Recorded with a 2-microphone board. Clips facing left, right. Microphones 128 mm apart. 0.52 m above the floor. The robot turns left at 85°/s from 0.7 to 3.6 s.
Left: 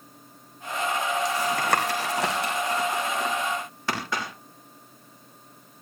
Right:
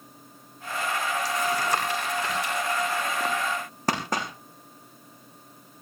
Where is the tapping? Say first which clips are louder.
Even; 20° left (ahead or behind), 5.5 m; by 4.3 s 40° right (ahead or behind), 5.5 m.